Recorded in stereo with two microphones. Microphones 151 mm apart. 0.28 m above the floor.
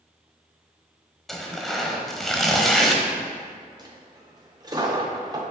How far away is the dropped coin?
About 2.0 m.